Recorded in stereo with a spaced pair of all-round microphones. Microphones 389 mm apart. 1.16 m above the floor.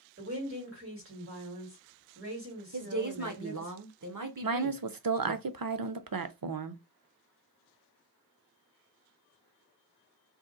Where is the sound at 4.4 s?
60° right (ahead or behind), 0.5 m.